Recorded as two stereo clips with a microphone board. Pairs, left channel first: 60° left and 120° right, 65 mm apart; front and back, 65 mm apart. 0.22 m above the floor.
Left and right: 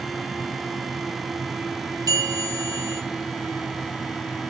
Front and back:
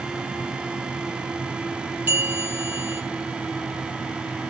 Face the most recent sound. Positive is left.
turn(degrees=-115)